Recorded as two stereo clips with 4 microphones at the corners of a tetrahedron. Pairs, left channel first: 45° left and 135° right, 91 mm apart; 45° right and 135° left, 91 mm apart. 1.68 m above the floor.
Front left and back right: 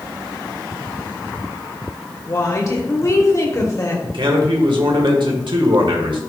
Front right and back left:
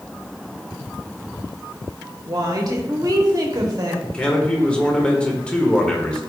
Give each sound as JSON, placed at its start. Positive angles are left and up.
{"t": 2.3, "sound": "a woman speaking", "azimuth_deg": 95, "distance_m": 1.2}
{"t": 4.0, "sound": "a man speaking", "azimuth_deg": -125, "distance_m": 1.5}